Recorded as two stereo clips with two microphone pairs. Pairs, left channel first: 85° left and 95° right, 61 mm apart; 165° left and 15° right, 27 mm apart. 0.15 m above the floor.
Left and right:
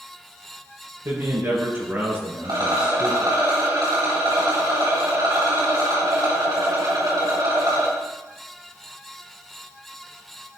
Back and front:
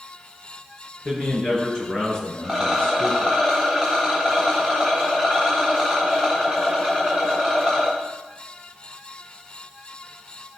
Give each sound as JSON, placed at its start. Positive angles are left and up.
{"t": 1.1, "sound": "a man speaking", "azimuth_deg": -125, "distance_m": 2.5}
{"t": 2.4, "sound": "a rattle", "azimuth_deg": -100, "distance_m": 4.0}